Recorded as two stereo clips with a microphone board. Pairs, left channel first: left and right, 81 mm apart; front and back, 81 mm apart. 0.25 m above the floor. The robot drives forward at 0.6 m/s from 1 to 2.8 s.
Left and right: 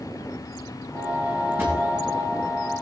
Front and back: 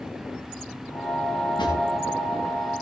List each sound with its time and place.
1.6 s a drawer: 25° right, 7.5 m